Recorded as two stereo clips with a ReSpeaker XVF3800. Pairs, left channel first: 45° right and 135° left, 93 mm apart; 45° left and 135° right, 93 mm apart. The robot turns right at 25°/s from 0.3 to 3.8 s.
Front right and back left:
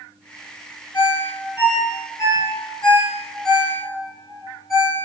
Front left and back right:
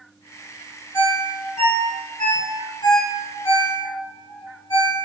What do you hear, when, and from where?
0.9 s a ringtone: 25° right, 1.1 m; by 5.1 s 50° left, 1.1 m